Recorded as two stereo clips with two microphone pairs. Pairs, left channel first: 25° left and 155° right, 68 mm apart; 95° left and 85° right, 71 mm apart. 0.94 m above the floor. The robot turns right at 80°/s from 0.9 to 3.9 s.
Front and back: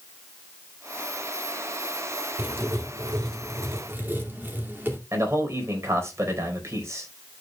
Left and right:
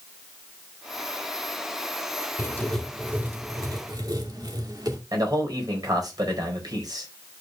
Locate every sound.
2.4 s writing: 145° left, 2.5 m; by 5.0 s 95° right, 2.5 m
5.1 s a man speaking: 105° right, 4 m